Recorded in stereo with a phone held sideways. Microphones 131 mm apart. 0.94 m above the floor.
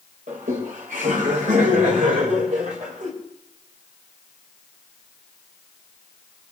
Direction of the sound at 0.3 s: 75° right (ahead or behind).